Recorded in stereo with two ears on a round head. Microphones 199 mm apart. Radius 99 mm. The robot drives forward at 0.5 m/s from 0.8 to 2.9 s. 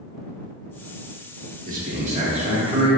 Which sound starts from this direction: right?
A man speaking, at 1.6 s.